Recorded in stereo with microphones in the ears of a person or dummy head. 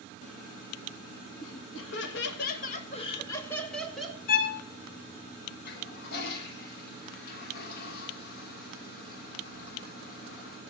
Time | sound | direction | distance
1.4 | laughter | 80° left | 2 m
4.3 | a violin | 55° left (ahead or behind) | 1.5 m
5.7 | a toilet flushing | 55° left (ahead or behind) | 1.4 m